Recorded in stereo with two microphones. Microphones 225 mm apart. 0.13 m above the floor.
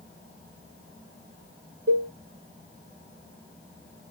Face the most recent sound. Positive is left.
turn(degrees=-75)  # may be behind; listen again after turning